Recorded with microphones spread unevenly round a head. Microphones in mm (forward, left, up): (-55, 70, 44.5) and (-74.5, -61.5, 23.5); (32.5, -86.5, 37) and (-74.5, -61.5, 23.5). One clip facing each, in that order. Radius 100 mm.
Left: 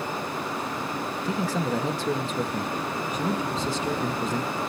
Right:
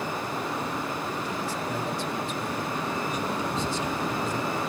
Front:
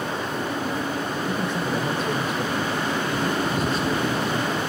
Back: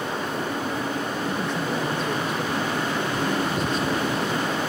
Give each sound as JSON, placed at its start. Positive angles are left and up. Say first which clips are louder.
{"t": 1.2, "sound": "a man speaking", "louder": "left 4 dB, front 2 dB", "azimuth_deg": 75, "distance_m": 1.9}